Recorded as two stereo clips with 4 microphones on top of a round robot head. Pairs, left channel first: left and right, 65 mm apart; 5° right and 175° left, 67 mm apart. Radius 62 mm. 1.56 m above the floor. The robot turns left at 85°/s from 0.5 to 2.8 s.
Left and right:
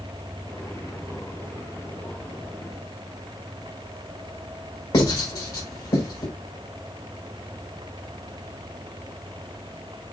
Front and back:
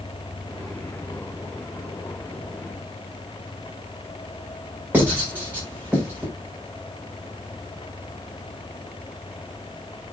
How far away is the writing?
About 6 m.